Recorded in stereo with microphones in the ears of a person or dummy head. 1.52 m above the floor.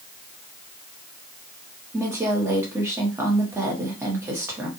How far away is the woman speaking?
About 1.2 m.